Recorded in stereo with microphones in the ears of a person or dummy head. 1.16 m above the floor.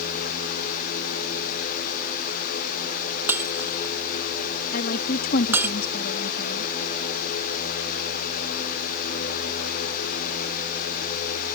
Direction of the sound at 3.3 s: 10° right (ahead or behind).